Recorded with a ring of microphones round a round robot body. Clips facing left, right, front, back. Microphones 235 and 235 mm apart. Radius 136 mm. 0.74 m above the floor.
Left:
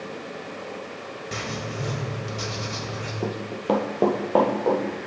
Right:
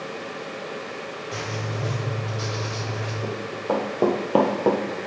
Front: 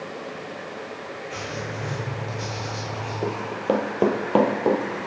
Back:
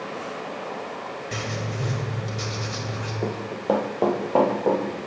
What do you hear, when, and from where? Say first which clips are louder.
1.3 s writing: even, back 2 dB; 140° left, 1.5 m
3.2 s running footsteps: left 3 dB, front 1 dB; 85° left, 1.2 m; by 4.8 s 55° right, 1.3 m